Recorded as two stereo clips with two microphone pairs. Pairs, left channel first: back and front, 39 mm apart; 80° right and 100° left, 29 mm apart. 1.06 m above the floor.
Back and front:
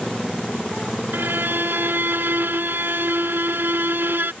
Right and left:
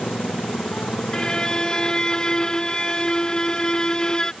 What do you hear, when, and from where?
0.0 s a motorcycle: 95° right
1.1 s a violin: 20° right